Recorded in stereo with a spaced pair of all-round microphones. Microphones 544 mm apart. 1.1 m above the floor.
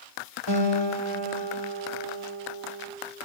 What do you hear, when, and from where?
0.5 s a guitar: 50° right (ahead or behind), 2 m